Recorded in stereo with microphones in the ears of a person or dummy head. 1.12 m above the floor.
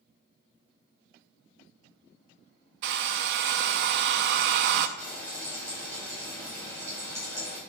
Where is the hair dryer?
60° right (ahead or behind), 0.6 m.